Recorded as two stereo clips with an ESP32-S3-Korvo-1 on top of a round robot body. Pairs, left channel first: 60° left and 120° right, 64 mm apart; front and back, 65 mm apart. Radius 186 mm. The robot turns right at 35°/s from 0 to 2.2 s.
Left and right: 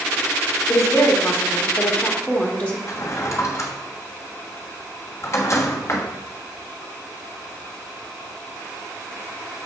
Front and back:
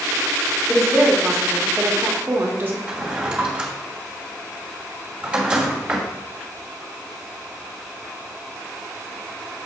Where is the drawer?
105° left, 1.3 m.